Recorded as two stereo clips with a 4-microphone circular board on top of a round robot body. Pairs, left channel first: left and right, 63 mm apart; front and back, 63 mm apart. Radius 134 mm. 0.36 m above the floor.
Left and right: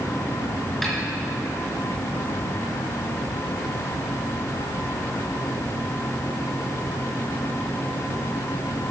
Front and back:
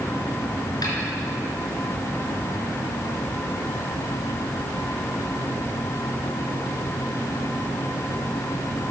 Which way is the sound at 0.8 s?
Straight ahead.